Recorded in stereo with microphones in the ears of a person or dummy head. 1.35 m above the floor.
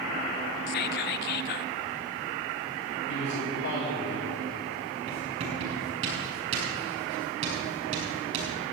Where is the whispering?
55° left (ahead or behind), 0.5 m.